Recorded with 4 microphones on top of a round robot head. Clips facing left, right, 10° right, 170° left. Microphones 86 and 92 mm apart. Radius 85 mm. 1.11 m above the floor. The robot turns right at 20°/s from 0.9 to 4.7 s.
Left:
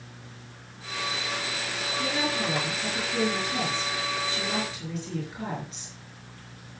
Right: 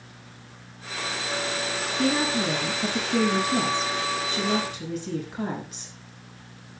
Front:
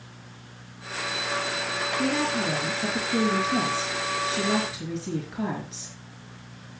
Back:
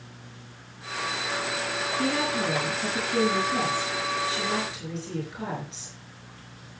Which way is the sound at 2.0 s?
105° right.